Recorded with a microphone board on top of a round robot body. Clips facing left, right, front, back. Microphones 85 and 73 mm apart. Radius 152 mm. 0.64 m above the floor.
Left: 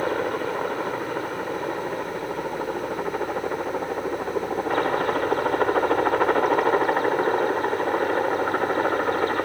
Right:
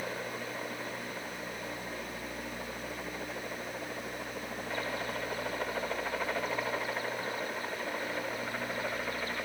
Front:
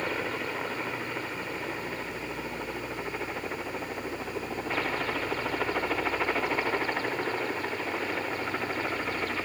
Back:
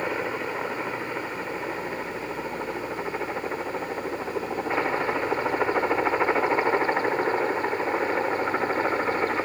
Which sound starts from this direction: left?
A helicopter, at 0.0 s.